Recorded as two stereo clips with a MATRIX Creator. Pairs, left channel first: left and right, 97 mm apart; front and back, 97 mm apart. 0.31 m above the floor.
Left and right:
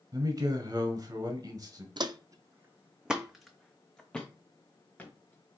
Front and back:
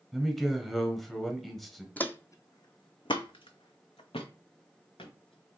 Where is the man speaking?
85° right, 1.2 m.